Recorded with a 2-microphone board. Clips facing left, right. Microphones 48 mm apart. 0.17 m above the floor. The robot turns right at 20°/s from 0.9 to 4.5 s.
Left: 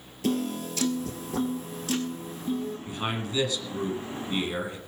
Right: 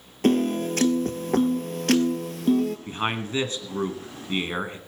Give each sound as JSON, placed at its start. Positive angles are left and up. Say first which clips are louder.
{"t": 0.2, "sound": "a piano", "louder": "right 7 dB", "azimuth_deg": -130, "distance_m": 1.3}
{"t": 2.9, "sound": "a man speaking", "louder": "right 4 dB", "azimuth_deg": -100, "distance_m": 1.7}